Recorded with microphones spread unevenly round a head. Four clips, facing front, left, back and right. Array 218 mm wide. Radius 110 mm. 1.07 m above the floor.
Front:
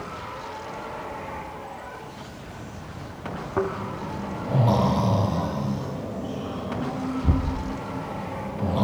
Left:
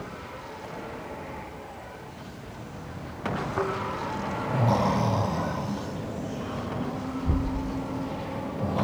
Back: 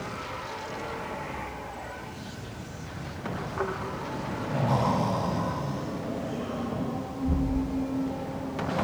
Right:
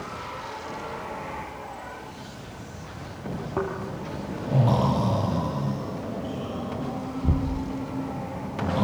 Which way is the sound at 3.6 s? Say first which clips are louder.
Right 2 dB, front 7 dB; 35° right.